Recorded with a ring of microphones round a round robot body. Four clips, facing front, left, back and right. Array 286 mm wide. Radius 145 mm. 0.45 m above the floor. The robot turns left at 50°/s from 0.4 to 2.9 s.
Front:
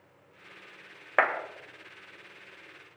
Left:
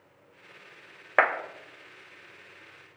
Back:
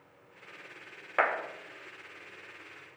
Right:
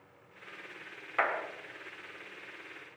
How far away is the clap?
About 2 m.